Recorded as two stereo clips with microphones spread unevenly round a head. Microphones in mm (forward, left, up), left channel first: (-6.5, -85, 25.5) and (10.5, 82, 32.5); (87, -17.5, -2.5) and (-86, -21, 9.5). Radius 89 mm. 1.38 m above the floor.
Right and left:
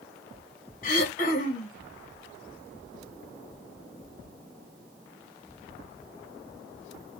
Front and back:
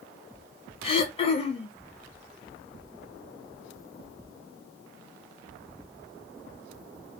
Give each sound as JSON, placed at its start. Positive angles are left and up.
{"t": 0.8, "sound": "throat clearing", "azimuth_deg": -55, "distance_m": 0.7}